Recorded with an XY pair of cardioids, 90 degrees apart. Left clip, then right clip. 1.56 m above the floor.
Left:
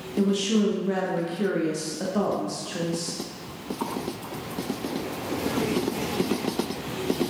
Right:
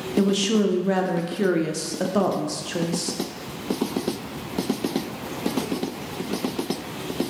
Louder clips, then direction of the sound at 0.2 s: Right 3 dB; 50° right.